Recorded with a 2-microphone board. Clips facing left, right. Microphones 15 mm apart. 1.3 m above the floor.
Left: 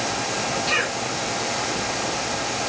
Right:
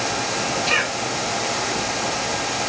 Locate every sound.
0.7 s a cough: 70° right (ahead or behind), 4.5 m